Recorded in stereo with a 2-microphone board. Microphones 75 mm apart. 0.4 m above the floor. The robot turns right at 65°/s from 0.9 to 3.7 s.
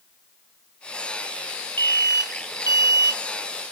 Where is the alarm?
35° left; by 3.2 s 130° left.